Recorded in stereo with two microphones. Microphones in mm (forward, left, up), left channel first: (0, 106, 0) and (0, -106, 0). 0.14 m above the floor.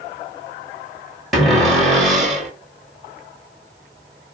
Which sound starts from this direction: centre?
A cupboard door, at 1.3 s.